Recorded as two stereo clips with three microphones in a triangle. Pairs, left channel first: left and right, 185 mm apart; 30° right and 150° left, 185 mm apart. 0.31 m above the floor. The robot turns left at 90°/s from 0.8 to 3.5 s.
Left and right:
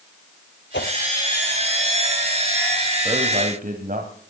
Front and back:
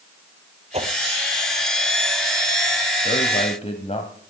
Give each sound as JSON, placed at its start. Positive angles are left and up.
{"t": 0.7, "sound": "a whoosh", "azimuth_deg": 95, "distance_m": 1.9}
{"t": 3.0, "sound": "a man speaking", "azimuth_deg": -30, "distance_m": 1.4}